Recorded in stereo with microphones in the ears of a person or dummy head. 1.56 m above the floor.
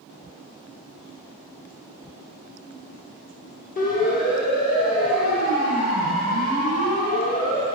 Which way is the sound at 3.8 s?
50° left (ahead or behind).